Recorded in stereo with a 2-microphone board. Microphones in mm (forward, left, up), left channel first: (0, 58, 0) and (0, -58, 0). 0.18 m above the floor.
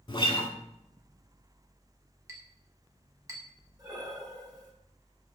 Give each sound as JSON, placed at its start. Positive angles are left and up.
{"t": 0.1, "sound": "a guitar", "side_deg": 45, "distance_m": 0.7}
{"t": 2.3, "sound": "a clink", "side_deg": -25, "distance_m": 0.8}
{"t": 3.8, "sound": "breathing", "side_deg": -35, "distance_m": 0.8}